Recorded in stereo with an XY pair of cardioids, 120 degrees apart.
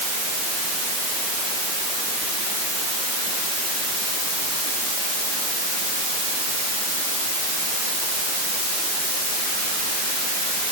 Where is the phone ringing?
I don't hear a phone ringing.